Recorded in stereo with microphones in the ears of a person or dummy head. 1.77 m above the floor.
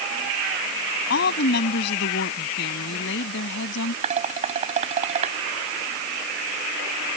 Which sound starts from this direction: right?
Dishes clattering, at 4.0 s.